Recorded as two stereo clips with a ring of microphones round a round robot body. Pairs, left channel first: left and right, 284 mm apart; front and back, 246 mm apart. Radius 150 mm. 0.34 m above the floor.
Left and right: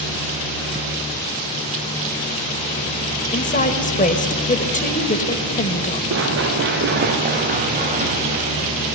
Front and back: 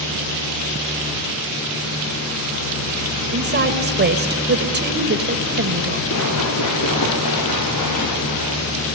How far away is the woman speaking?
About 1.9 m.